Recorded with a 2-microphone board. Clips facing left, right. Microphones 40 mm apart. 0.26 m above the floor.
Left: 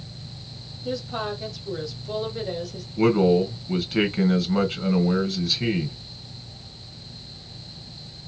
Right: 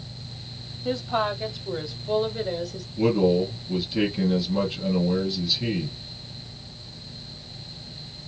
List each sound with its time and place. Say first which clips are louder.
0.8 s a woman speaking: right 4 dB; 40° right (ahead or behind), 1.7 m; by 2.9 s 5° right (ahead or behind), 1.5 m
3.0 s a man speaking: left 2 dB; 60° left (ahead or behind), 2 m